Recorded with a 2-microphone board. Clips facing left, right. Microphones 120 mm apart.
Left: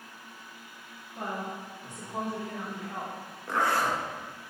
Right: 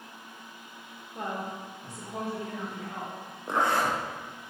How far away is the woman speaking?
About 1.4 m.